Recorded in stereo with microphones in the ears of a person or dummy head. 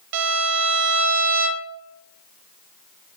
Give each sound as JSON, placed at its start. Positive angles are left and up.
{"t": 0.1, "sound": "a violin", "side_deg": -65, "distance_m": 0.6}